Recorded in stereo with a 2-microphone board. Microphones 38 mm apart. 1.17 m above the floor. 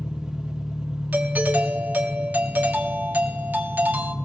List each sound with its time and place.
0.0 s an engine running: 10° right (ahead or behind), 3.5 m
1.1 s a doorbell: 50° right (ahead or behind), 1.4 m